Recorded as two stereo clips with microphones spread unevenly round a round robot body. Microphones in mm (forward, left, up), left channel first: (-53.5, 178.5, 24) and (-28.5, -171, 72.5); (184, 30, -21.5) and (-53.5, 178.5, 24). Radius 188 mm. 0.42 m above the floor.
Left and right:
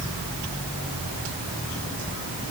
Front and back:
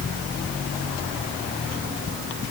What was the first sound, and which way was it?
Only background noise.